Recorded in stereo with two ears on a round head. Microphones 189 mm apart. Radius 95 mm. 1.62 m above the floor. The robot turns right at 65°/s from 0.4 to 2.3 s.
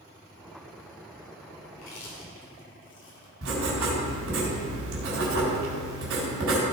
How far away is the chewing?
About 2.5 m.